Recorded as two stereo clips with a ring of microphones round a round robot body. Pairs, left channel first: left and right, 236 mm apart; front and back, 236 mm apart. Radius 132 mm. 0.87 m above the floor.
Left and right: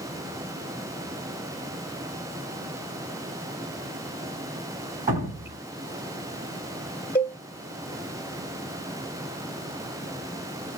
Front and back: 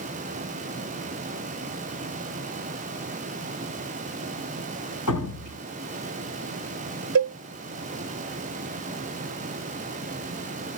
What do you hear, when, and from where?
5.1 s dripping: 40° right, 2 m
7.2 s a cowbell: 170° left, 0.6 m